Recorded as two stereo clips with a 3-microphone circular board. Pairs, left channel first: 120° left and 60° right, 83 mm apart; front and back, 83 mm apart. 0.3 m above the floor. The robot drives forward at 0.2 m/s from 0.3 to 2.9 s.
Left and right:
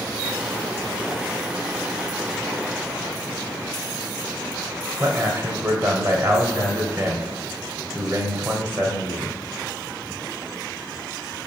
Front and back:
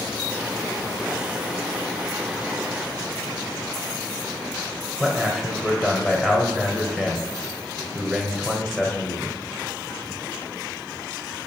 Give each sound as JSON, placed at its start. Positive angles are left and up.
{"t": 5.0, "sound": "a man speaking", "azimuth_deg": -90, "distance_m": 1.1}